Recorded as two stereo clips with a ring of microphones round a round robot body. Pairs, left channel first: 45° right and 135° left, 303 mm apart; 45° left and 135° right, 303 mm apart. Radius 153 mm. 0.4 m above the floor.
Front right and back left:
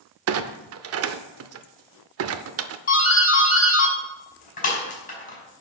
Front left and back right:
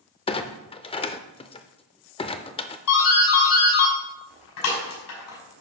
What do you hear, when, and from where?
0.3 s a clunk: 115° left, 0.5 m
2.9 s a doorbell: 20° left, 5 m